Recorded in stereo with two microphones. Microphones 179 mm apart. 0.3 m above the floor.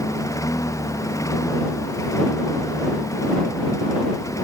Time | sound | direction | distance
0.0 | a lawn mower | 20° left (ahead or behind) | ?